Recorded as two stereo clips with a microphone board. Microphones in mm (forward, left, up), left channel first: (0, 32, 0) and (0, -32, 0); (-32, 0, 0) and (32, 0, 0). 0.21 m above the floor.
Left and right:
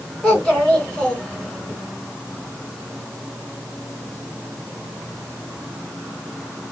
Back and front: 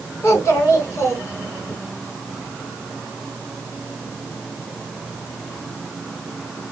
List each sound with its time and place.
0.2 s a child speaking: 165° left, 1.6 m